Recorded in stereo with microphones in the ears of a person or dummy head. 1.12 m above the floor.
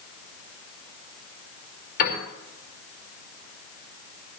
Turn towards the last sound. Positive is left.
turn(degrees=45)  # may be behind; listen again after turning